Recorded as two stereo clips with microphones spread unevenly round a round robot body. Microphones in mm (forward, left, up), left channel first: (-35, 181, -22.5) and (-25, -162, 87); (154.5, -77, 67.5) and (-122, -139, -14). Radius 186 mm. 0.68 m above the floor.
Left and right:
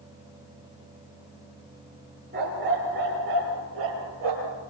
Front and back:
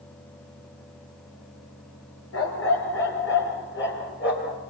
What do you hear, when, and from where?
2.3 s a dog barking: 25° right, 5.5 m; by 4.6 s 40° right, 6.5 m